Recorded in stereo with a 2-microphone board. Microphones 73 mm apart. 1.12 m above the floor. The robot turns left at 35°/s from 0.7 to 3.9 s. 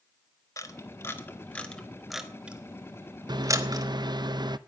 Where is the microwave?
75° right (ahead or behind), 0.6 m; by 4.6 s 80° right, 0.6 m.